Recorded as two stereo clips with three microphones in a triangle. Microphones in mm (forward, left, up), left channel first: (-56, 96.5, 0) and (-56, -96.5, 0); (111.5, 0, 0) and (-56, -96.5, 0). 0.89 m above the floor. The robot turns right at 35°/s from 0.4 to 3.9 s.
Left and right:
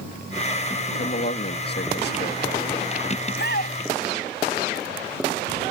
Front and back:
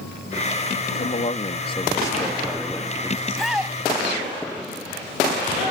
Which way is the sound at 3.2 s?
110° left.